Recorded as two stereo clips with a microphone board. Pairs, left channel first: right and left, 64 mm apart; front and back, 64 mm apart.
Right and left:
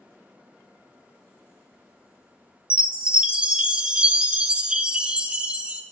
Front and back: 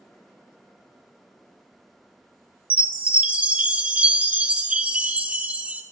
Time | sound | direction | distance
2.7 | a chime | 140° left | 0.6 m